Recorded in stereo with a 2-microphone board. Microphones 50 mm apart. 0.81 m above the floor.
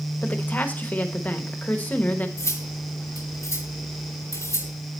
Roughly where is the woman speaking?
Left.